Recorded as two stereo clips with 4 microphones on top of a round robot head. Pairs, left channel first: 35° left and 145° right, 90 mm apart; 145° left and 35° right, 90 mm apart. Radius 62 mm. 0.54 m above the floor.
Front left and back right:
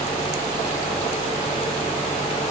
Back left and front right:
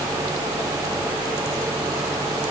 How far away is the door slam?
I don't hear a door slam.